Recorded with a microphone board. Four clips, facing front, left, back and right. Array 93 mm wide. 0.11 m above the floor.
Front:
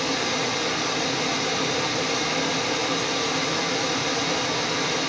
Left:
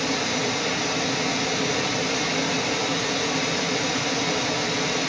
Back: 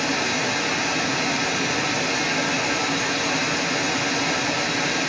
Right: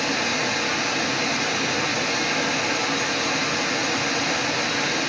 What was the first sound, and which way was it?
Running water, 130° right.